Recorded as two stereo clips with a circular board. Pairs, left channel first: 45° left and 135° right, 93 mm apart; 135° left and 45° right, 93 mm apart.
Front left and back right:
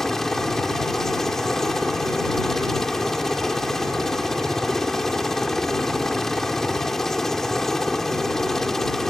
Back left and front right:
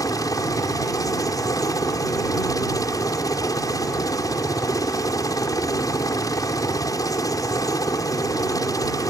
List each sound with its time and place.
0.0 s a helicopter: 130° left